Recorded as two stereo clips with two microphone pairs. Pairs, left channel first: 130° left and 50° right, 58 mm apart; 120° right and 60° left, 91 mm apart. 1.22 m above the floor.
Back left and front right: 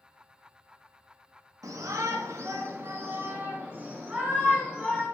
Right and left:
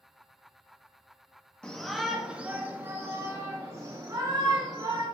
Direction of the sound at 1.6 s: 40° right.